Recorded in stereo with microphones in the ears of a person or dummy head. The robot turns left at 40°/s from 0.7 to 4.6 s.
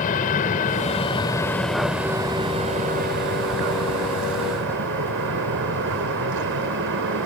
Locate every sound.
0.0 s an aircraft: 45° left; by 7.3 s 115° right